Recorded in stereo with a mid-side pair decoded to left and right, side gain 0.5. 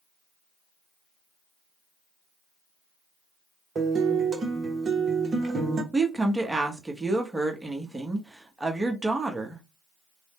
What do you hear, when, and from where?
3.8 s a guitar: 35° right, 0.9 m
5.9 s a woman speaking: 15° right, 1.0 m